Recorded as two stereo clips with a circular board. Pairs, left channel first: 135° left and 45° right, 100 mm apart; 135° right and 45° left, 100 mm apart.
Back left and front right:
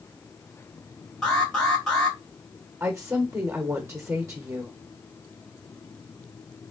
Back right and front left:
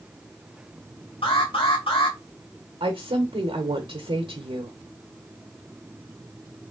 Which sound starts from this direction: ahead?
A woman speaking, at 2.8 s.